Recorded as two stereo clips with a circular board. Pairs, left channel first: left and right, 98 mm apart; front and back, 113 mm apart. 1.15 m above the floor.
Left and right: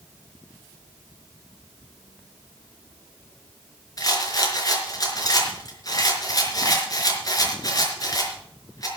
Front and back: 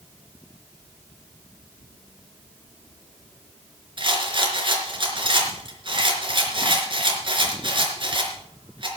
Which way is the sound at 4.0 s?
140° left.